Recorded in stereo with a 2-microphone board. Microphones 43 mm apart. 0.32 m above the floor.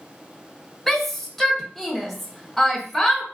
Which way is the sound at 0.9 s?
5° left (ahead or behind).